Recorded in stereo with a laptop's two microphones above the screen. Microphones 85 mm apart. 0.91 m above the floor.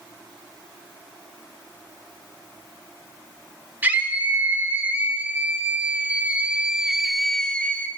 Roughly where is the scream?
Right.